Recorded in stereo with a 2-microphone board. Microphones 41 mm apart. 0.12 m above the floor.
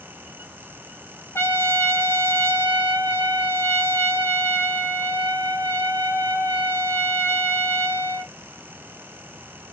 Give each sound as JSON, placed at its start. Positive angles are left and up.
{"t": 1.4, "sound": "a trumpet", "side_deg": 75, "distance_m": 1.0}